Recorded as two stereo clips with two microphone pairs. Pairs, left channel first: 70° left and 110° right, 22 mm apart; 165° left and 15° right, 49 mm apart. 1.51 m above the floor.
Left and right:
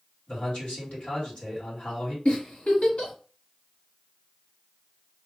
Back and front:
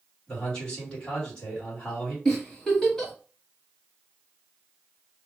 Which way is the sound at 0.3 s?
95° left.